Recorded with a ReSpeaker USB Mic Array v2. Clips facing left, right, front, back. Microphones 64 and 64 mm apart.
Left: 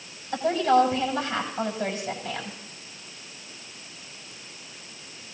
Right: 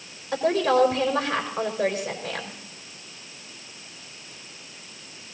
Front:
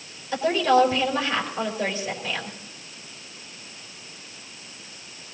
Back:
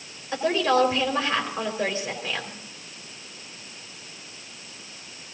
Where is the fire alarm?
I don't hear a fire alarm.